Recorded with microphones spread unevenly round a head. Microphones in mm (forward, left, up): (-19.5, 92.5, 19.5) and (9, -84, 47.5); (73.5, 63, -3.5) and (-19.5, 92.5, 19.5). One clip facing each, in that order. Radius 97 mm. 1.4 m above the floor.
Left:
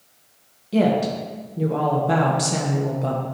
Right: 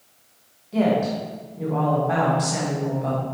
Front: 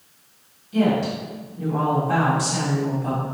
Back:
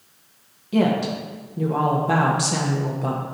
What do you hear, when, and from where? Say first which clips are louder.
0.7 s a woman speaking: left 1 dB, even; 150° left, 1.4 m